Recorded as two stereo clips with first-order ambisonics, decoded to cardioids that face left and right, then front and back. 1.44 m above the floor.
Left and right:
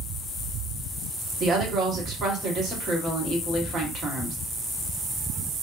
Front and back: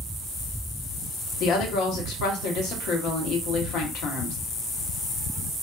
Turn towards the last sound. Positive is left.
turn(degrees=-30)